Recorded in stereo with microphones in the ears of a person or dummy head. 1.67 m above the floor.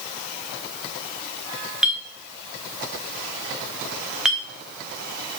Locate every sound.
1.8 s a clink: centre (ahead or behind), 1.2 m